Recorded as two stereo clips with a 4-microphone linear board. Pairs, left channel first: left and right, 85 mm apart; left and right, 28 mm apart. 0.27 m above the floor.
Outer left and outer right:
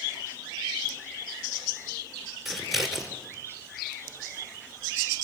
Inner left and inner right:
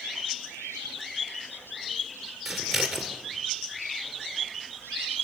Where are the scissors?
5° right (ahead or behind), 3 m.